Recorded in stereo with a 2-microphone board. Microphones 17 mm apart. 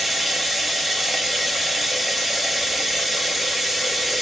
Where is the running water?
5° right (ahead or behind), 0.9 m.